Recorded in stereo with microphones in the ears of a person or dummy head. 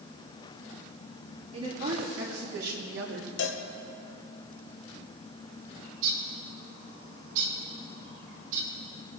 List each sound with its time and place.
1.5 s a woman speaking: 50° right (ahead or behind), 3 m; by 3.3 s 75° right (ahead or behind), 1.8 m
3.4 s a cowbell: 65° left (ahead or behind), 1.5 m
5.8 s a bird: 70° right (ahead or behind), 3 m